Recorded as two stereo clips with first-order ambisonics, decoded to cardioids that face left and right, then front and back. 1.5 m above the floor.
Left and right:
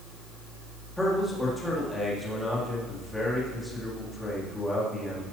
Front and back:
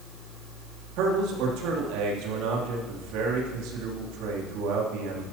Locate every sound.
1.0 s a man speaking: 175° left, 3 m